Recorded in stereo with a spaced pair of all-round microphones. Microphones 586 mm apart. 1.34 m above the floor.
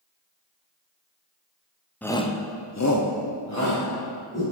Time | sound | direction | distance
2.0 | a shout | 5° left (ahead or behind) | 0.7 m